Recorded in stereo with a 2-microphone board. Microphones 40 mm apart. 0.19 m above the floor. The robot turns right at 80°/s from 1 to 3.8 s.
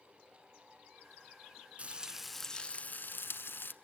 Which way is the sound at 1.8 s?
40° right.